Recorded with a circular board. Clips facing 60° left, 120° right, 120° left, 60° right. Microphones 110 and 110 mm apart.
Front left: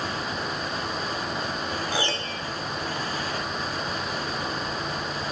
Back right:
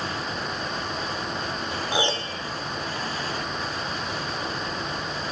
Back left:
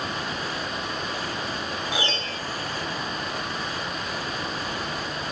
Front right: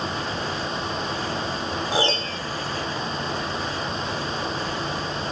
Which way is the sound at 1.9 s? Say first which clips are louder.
Back right 2 dB, front right 5 dB; 65° right.